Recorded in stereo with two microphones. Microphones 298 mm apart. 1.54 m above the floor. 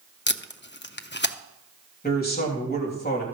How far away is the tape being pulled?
About 0.6 m.